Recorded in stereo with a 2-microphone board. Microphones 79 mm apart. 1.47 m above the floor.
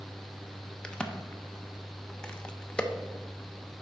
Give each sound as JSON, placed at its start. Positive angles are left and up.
{"t": 0.8, "sound": "a crack", "side_deg": 10, "distance_m": 0.7}